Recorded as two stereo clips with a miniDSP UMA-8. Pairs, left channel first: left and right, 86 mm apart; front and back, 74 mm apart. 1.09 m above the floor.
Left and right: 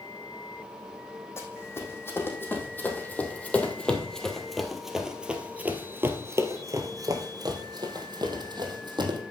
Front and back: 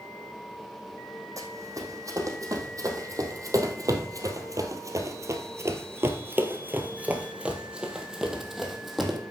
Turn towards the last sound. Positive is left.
turn(degrees=-90)